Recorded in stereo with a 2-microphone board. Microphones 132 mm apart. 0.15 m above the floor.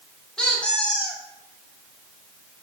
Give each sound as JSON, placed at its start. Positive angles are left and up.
{"t": 0.4, "sound": "a squeak", "side_deg": 5, "distance_m": 2.0}